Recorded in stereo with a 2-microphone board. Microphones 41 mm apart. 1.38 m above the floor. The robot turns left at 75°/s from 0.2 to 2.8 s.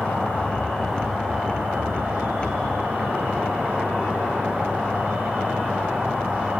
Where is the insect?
60° left, 4 m; by 6.6 s 135° right, 4 m.